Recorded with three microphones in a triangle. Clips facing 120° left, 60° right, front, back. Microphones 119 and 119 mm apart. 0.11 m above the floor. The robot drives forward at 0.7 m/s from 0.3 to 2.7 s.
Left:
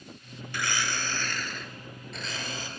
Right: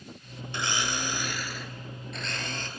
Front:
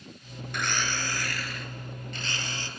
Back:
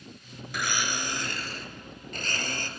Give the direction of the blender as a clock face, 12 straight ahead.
3 o'clock.